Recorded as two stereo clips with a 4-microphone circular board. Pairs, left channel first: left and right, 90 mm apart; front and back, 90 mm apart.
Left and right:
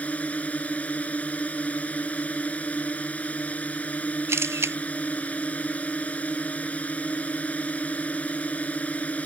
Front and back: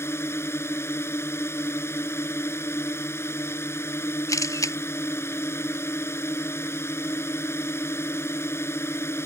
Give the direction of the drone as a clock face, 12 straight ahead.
11 o'clock.